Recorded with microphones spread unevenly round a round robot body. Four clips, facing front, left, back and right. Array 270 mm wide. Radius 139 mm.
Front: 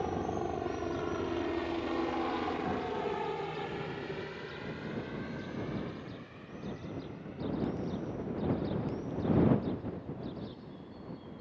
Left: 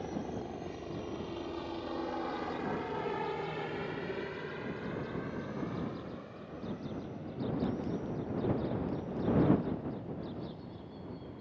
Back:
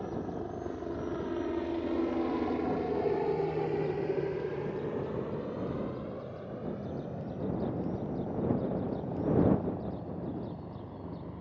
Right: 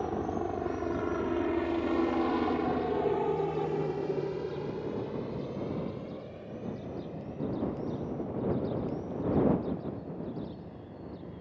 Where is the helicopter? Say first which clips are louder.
Right 7 dB, front 3 dB; 65° right; by 11.4 s 165° right.